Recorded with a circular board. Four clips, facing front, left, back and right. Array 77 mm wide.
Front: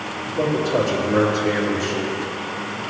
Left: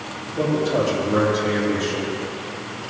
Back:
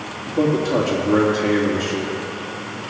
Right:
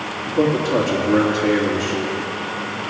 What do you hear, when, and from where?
0.3 s a man speaking: 160° right, 3 m